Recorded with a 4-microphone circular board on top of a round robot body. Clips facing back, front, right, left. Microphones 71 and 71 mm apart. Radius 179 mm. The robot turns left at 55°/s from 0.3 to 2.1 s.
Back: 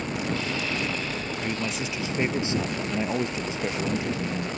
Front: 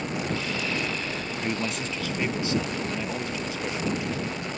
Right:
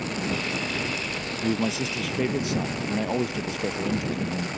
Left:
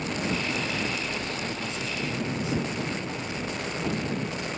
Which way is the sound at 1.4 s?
75° right.